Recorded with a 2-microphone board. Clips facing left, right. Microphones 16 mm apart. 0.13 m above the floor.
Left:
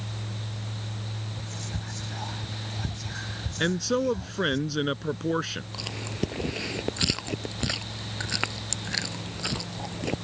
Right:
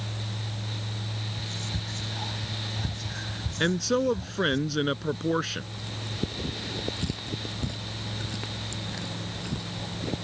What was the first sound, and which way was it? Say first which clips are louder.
Whispering: right 3 dB; 10° left (ahead or behind).